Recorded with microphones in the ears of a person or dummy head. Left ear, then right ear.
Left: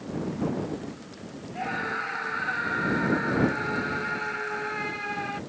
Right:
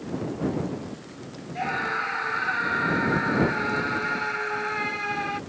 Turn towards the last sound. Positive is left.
turn(degrees=-10)  # may be behind; listen again after turning